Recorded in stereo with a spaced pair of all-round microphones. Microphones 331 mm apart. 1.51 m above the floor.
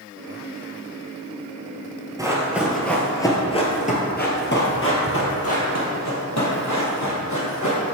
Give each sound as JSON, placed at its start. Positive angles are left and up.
{"t": 2.2, "sound": "running footsteps", "side_deg": -10, "distance_m": 1.6}